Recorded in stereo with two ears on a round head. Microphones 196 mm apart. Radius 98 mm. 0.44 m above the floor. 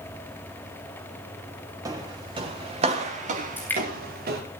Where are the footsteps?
15° right (ahead or behind), 4.5 m; by 4.4 s 45° right (ahead or behind), 5 m.